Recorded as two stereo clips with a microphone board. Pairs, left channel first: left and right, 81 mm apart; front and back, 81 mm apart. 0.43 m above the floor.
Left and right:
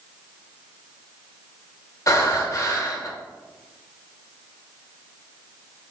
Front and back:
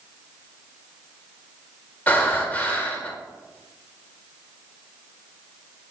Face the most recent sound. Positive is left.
turn(degrees=60)